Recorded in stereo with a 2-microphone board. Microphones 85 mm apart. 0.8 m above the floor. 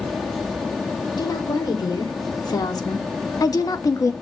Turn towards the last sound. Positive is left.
turn(degrees=45)  # may be behind; listen again after turning